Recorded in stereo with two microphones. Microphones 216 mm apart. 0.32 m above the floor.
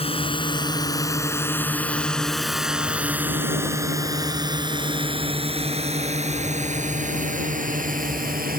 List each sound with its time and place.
0.0 s a drone: 25° left (ahead or behind); by 8.6 s 40° right (ahead or behind)